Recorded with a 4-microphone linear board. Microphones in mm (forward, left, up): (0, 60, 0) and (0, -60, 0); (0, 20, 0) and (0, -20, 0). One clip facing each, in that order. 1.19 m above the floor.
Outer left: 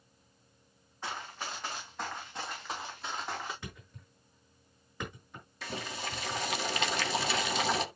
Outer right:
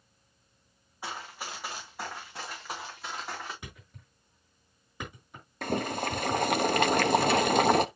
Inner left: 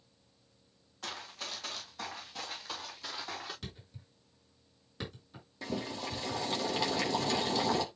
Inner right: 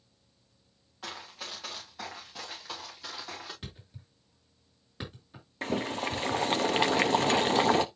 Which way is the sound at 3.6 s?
15° right (ahead or behind).